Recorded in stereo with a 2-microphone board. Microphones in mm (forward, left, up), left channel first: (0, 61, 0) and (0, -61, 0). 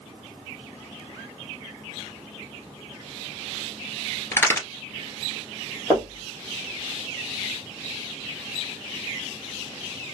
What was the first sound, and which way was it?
A crack, 20° left (ahead or behind).